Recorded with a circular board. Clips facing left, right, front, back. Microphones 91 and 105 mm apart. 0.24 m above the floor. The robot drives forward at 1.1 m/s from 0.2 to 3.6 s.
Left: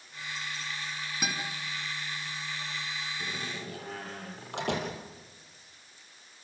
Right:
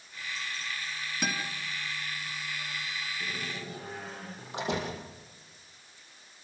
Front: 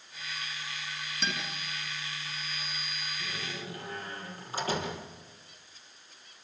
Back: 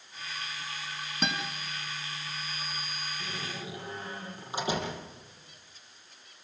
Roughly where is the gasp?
No gasp in this recording.